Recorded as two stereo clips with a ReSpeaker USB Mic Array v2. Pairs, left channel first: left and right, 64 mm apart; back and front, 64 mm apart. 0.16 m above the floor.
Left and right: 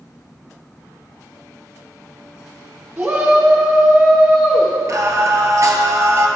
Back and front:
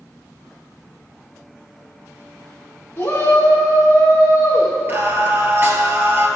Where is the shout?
135° right, 1.9 m; by 4.7 s straight behind, 1.9 m.